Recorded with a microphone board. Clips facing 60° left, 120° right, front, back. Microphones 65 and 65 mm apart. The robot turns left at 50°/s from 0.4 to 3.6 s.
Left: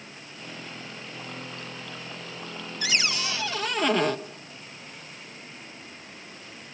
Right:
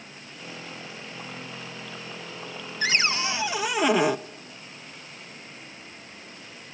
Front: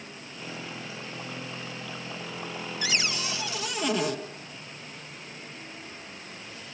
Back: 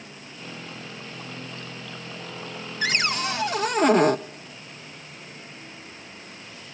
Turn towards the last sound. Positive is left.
turn(degrees=165)